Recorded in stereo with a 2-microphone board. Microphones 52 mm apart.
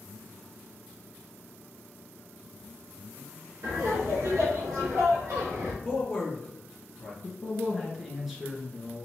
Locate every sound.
3.6 s laughter: 65° right (ahead or behind), 2.5 m
5.8 s a man speaking: 10° left (ahead or behind), 1.9 m
7.2 s a man speaking: 5° right (ahead or behind), 1.6 m